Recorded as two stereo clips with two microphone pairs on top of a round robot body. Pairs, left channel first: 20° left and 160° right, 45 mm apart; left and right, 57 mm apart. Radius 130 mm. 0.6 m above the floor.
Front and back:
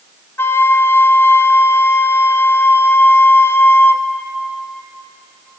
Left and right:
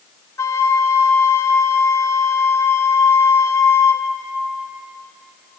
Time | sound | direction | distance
0.4 | a flute | 55° left | 0.9 m